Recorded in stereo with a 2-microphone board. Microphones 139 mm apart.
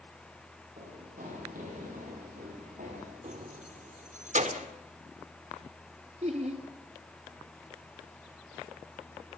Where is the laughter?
55° right (ahead or behind), 1.9 m.